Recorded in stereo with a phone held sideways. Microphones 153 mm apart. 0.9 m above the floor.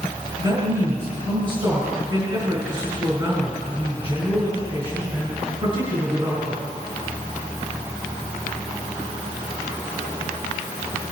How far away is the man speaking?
About 4.5 m.